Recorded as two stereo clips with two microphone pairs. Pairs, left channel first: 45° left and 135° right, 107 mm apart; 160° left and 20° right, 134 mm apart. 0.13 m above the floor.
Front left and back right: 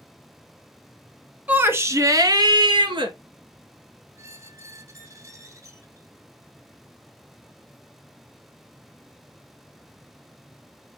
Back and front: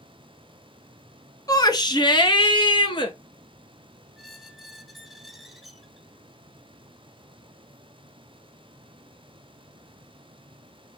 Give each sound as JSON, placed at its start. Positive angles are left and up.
{"t": 1.5, "sound": "a shout", "azimuth_deg": 170, "distance_m": 1.1}
{"t": 4.2, "sound": "a squeak", "azimuth_deg": -110, "distance_m": 0.9}